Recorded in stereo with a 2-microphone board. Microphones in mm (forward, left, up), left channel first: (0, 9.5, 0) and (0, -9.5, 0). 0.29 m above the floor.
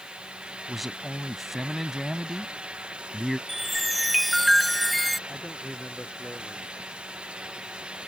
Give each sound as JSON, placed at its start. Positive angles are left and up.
{"t": 0.7, "sound": "a man speaking", "side_deg": 0}
{"t": 3.5, "sound": "a chime", "side_deg": 0}
{"t": 5.3, "sound": "a man speaking", "side_deg": 80}